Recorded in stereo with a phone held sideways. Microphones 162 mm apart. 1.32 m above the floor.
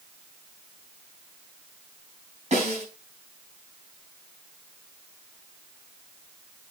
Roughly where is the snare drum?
Right.